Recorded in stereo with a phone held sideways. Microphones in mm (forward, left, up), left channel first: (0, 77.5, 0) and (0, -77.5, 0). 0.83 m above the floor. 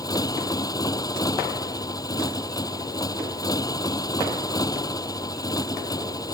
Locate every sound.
0.0 s a motorcycle: 25° left (ahead or behind)